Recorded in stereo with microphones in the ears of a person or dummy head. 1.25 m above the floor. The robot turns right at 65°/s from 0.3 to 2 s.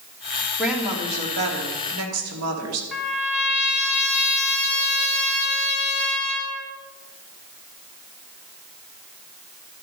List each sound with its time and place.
0.6 s a woman speaking: 175° left, 2.5 m; by 2.8 s 95° right, 2.5 m
2.9 s a trumpet: centre (ahead or behind), 3 m